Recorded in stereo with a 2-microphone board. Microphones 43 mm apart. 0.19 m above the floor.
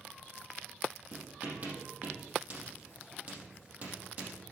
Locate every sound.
1.1 s writing: 40° right (ahead or behind), 4.5 m